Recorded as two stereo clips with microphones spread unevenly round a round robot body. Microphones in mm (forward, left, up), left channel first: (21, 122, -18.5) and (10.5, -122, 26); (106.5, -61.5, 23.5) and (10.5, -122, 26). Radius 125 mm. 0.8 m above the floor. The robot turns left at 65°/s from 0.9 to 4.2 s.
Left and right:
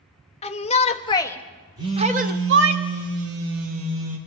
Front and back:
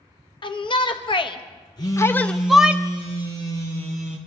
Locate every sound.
0.4 s a shout: 50° left, 1.0 m; by 2.8 s 75° right, 1.0 m
1.8 s a phone buzzing: 20° right, 3 m; by 4.2 s 175° right, 3 m